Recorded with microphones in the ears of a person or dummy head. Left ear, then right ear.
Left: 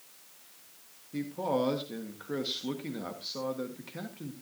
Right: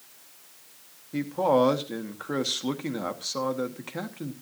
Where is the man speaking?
25° right (ahead or behind), 1.1 m.